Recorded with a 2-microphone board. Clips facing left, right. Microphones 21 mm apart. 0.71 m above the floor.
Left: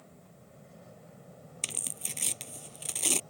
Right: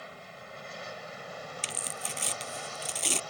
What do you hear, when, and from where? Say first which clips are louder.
0.0 s an aircraft: right 11 dB; 70° right (ahead or behind)
1.6 s tearing paper: right 1 dB; 5° right (ahead or behind)